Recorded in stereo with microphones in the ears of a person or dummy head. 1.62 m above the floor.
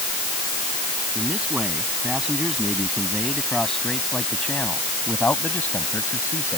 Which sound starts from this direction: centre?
A man speaking, at 1.1 s.